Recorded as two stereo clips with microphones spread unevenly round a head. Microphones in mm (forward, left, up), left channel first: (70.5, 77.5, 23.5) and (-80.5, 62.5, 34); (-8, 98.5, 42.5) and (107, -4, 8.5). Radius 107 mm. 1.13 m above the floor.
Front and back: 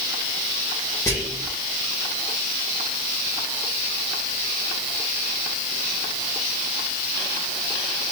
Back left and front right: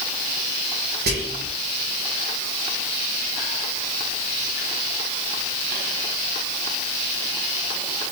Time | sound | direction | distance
1.1 | whispering | 70° right | 1.1 m